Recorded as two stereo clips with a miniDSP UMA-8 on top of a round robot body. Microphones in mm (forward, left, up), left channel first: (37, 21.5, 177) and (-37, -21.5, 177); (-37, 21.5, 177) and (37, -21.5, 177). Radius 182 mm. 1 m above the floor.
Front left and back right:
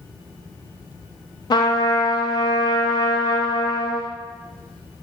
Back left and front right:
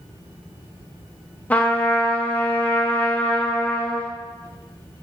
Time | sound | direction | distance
1.5 | a trumpet | 75° left | 0.5 m